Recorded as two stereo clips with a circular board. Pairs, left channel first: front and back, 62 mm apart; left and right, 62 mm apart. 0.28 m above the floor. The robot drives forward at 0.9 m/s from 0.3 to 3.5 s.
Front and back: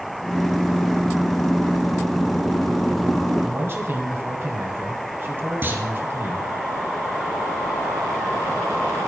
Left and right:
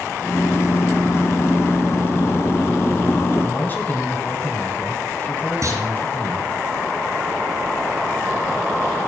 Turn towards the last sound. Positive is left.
turn(degrees=-125)